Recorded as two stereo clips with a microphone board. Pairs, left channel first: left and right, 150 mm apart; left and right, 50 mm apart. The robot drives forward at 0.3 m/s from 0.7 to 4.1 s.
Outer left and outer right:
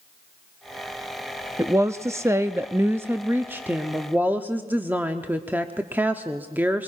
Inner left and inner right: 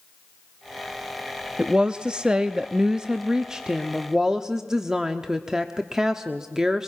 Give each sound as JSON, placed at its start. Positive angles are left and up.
{"t": 1.6, "sound": "a woman speaking", "side_deg": -20, "distance_m": 0.6}